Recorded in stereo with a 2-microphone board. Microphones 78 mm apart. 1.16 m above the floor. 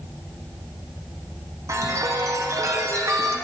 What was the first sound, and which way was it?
A chime, 40° right (ahead or behind).